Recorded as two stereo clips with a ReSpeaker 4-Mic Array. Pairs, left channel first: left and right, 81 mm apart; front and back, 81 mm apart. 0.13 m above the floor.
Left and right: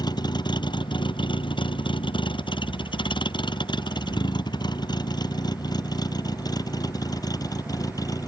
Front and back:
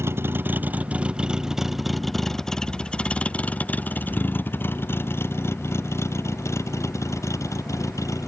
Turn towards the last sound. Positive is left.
turn(degrees=50)